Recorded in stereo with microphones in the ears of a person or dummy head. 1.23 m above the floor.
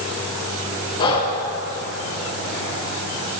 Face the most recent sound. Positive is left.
turn(degrees=25)  # may be behind; listen again after turning